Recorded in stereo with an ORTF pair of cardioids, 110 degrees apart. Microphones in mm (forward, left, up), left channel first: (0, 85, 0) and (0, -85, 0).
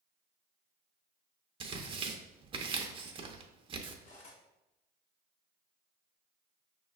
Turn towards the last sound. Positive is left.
turn(degrees=50)